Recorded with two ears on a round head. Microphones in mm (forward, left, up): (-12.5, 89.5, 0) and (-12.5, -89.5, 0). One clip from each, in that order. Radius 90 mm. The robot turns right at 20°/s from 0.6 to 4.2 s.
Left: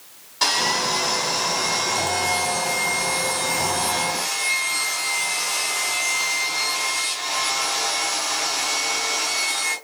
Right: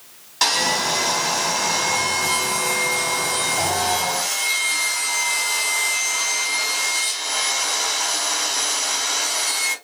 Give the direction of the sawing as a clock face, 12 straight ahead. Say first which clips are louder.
Right 1 dB; 5 o'clock.